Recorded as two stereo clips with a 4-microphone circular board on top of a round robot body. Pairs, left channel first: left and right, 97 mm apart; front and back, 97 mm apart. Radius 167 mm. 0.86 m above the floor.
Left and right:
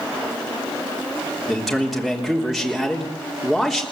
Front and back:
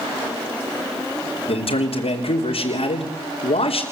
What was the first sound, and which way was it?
A man speaking, straight ahead.